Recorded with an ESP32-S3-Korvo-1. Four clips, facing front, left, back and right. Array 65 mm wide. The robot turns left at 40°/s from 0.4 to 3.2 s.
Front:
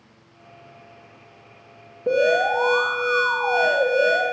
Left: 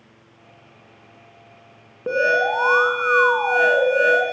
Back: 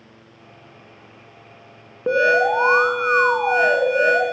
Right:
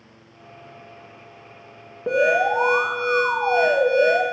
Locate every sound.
2.1 s an alarm: 175° left, 1.4 m; by 4.2 s 130° left, 1.4 m